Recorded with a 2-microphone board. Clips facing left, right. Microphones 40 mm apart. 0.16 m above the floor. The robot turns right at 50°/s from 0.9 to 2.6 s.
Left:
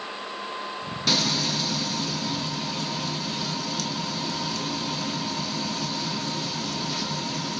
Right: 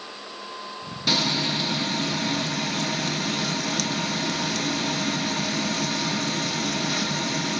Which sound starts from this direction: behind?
Frying, at 1.1 s.